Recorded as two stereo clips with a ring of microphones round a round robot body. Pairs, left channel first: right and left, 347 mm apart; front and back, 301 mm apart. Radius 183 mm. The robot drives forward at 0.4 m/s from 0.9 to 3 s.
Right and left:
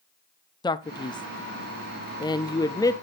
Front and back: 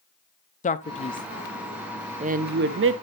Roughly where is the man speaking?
Ahead right.